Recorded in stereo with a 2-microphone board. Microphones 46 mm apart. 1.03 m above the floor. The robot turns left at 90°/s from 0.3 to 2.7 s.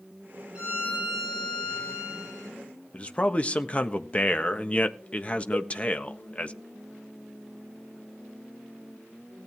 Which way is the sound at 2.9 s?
25° left (ahead or behind).